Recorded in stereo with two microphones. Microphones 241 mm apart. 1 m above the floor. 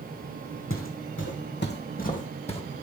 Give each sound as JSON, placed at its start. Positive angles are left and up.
{"t": 0.7, "sound": "footsteps", "side_deg": 60, "distance_m": 2.0}